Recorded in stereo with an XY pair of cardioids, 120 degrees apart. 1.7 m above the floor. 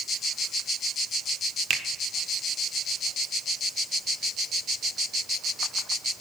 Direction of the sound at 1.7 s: 55° right.